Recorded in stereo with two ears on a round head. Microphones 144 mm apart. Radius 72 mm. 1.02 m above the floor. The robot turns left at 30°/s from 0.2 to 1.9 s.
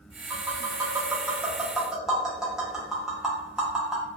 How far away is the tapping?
About 0.8 m.